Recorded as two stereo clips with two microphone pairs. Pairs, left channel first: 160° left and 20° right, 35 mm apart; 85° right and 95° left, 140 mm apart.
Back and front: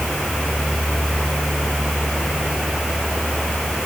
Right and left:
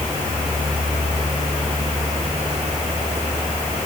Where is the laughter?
No laughter in this recording.